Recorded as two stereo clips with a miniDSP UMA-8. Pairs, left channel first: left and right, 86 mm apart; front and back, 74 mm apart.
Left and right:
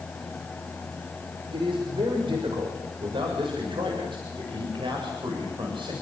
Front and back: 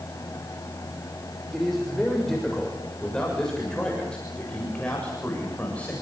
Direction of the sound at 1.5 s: 90° right.